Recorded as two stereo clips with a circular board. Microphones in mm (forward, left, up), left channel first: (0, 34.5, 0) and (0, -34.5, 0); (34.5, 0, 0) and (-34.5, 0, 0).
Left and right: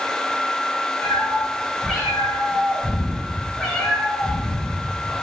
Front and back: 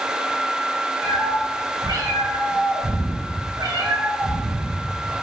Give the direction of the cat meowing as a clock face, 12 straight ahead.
6 o'clock.